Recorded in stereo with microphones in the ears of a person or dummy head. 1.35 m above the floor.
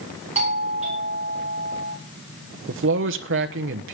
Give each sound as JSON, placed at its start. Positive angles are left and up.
{"t": 0.3, "sound": "a doorbell", "side_deg": -35, "distance_m": 4.5}
{"t": 2.7, "sound": "a man speaking", "side_deg": -60, "distance_m": 1.2}